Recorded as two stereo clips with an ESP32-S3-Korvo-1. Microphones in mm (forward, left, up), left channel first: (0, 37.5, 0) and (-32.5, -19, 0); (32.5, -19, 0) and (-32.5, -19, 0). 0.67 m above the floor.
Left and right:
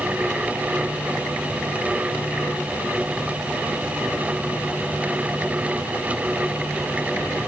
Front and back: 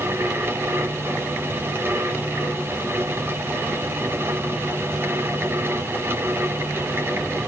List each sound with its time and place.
Only background noise.